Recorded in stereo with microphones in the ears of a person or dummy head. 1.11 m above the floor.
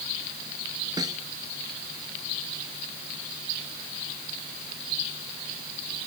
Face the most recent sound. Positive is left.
turn(degrees=-25)  # may be behind; listen again after turning